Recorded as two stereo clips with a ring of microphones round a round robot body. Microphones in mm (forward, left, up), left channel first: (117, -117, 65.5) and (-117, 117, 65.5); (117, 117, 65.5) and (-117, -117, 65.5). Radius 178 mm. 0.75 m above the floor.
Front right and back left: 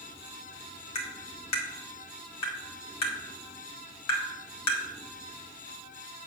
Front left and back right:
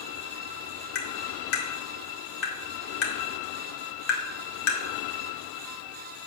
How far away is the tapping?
About 2.0 m.